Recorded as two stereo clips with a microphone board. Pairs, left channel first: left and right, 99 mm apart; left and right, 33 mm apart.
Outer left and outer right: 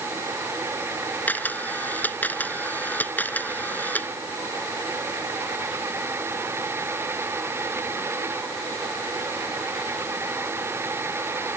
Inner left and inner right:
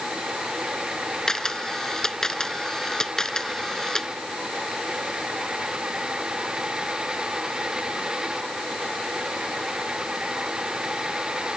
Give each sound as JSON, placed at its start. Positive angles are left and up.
{"t": 1.3, "sound": "a camera shutter", "side_deg": 15}